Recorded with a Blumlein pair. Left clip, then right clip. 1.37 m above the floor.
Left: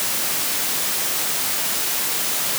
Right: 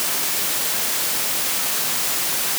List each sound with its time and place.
Only background noise.